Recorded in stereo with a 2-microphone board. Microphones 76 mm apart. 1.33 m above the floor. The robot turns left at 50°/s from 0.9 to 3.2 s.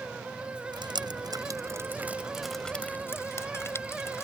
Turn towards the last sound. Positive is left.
turn(degrees=35)  # may be behind; listen again after turning